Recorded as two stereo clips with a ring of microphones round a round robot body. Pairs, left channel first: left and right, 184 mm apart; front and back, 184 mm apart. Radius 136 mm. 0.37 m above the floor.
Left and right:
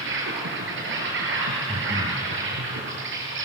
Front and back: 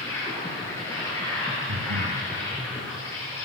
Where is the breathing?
165° right, 0.9 m.